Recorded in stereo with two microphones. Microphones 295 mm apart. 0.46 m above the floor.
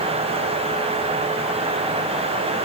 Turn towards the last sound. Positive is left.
No sound to turn to.